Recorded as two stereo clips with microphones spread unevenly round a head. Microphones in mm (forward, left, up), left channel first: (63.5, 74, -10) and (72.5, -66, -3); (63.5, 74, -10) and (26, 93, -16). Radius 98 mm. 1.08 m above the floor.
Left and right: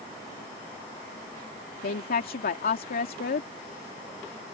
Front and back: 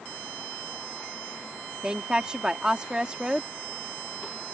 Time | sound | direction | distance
1.8 | a woman speaking | 85° left | ?